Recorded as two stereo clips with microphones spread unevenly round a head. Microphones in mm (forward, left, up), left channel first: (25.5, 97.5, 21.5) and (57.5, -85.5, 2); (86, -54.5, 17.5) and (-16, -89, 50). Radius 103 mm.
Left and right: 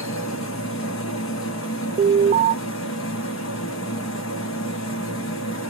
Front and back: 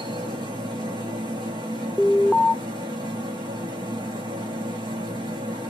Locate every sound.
0.0 s a machine running: 130° left, 1.2 m
2.0 s an alarm: 50° right, 0.6 m